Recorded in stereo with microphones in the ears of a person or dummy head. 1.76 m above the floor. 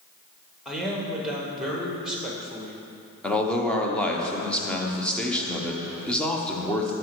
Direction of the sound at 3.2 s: 5° left (ahead or behind).